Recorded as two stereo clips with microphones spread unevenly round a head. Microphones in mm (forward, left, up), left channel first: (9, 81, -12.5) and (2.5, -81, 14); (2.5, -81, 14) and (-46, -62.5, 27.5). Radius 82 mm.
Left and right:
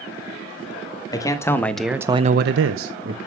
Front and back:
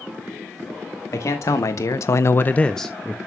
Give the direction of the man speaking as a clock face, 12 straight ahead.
11 o'clock.